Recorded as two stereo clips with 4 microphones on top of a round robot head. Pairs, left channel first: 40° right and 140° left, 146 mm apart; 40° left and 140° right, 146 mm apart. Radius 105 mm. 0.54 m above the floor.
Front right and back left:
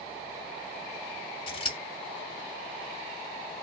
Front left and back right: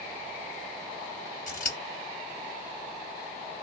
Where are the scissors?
15° left, 2 m.